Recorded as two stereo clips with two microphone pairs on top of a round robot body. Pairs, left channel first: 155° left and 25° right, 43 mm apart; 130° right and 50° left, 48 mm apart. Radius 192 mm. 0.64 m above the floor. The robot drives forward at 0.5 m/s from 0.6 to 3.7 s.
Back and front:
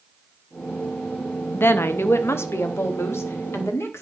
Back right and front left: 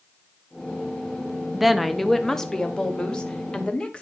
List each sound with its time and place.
1.5 s a woman speaking: 135° left, 0.8 m; by 4.0 s 165° left, 1.7 m